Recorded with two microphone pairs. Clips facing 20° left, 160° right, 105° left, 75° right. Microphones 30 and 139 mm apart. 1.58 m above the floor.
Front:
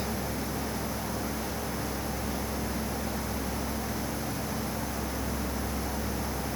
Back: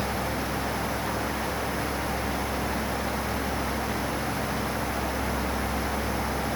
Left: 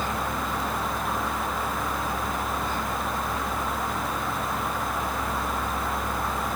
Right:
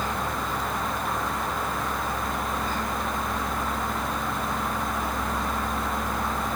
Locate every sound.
Only background noise.